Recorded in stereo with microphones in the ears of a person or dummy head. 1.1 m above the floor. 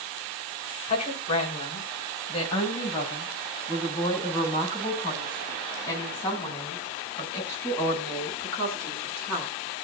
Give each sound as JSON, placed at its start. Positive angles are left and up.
{"t": 0.9, "sound": "a woman speaking", "side_deg": 35, "distance_m": 5.0}